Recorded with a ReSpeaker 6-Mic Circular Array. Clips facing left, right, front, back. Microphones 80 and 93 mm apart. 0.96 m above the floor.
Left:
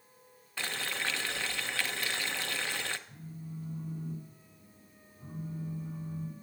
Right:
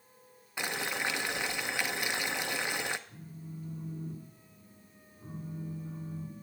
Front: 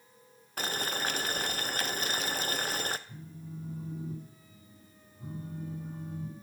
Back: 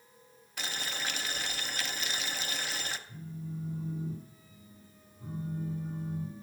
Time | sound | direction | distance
0.6 | boiling | 20° right | 0.5 m
3.1 | a phone buzzing | 45° left | 8.5 m